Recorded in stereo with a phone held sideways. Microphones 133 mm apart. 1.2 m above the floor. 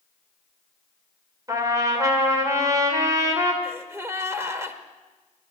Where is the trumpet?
25° right (ahead or behind), 2 m.